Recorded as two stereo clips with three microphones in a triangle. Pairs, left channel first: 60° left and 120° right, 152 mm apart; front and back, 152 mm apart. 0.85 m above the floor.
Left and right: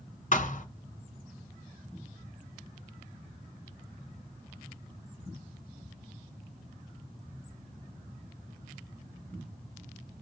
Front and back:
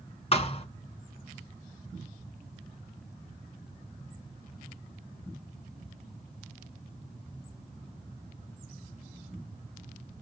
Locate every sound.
0.3 s a thud: 40° left, 1.2 m